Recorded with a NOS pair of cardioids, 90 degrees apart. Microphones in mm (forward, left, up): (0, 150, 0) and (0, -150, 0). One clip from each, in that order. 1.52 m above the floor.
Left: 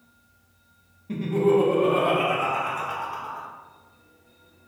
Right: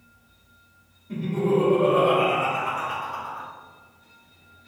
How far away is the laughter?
About 1.0 m.